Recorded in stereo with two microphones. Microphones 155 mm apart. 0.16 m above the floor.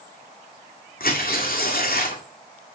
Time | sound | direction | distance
1.0 | tearing paper | 75° left (ahead or behind) | 2.0 m